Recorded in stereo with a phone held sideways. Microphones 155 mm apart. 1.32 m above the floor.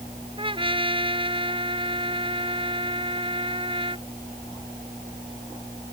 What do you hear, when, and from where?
0.4 s a trumpet: 35° right (ahead or behind)